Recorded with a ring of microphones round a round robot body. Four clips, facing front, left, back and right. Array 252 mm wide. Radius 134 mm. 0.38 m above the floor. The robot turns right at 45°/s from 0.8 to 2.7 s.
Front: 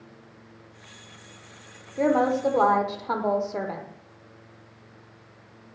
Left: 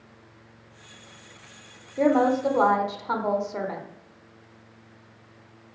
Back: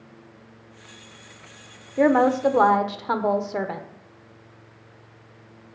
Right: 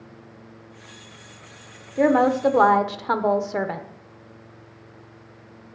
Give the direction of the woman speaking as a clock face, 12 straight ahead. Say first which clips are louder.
Right 3 dB, back 4 dB; 5 o'clock.